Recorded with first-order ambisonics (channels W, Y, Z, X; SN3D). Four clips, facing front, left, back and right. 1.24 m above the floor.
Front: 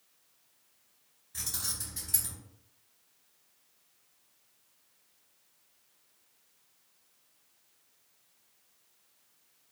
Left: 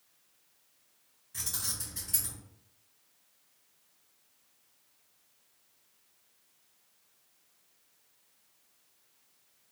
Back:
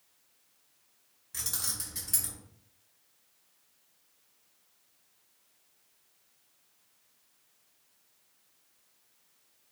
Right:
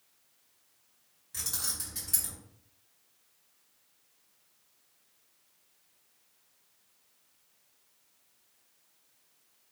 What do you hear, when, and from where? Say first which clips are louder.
1.3 s keys jangling: right 1 dB, back 1 dB; 145° right, 1.7 m